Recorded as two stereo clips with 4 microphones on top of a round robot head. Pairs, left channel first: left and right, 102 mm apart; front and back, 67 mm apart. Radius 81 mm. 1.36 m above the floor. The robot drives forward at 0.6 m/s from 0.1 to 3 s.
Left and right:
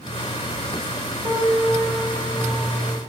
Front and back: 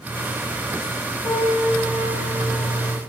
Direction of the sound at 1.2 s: 20° right.